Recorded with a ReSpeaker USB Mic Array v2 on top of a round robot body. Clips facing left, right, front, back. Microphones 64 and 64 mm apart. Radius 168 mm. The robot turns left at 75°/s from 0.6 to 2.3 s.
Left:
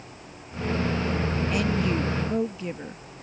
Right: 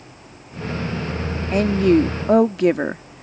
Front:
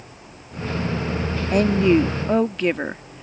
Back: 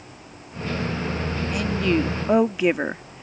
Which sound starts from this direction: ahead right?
A woman speaking, at 1.5 s.